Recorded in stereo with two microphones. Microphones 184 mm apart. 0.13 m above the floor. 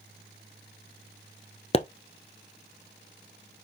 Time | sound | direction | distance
1.7 | a pop | 35° left (ahead or behind) | 0.9 m